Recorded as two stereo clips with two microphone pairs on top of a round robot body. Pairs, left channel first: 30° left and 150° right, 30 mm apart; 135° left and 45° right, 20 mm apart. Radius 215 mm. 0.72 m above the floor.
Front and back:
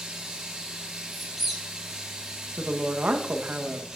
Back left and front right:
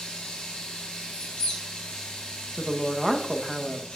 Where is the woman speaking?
125° right, 0.9 m.